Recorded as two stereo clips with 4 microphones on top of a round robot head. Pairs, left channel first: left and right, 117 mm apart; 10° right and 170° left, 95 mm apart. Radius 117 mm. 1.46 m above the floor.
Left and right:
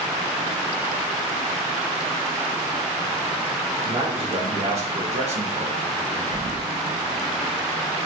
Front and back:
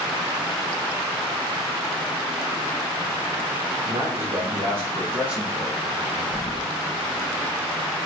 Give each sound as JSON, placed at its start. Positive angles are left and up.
{"t": 3.9, "sound": "a man speaking", "azimuth_deg": -130, "distance_m": 3.5}
{"t": 6.3, "sound": "keys jangling", "azimuth_deg": -120, "distance_m": 1.1}